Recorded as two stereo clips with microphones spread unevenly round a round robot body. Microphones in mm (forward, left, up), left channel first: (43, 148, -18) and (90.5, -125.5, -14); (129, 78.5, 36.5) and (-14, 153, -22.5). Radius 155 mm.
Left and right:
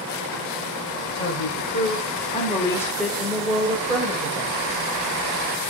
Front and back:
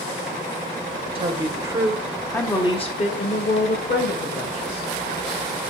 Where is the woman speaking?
145° left, 1.8 m; by 4.9 s 10° right, 3 m.